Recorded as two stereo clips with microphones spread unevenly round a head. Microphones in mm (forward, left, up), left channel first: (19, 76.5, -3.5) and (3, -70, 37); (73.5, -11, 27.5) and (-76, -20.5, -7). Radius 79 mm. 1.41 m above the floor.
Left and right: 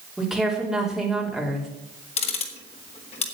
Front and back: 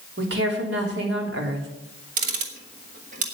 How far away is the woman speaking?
About 3 m.